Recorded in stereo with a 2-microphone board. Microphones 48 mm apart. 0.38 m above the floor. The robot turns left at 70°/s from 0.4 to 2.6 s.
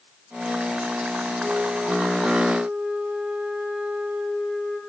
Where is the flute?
70° right, 3 m; by 4.8 s 155° right, 3 m.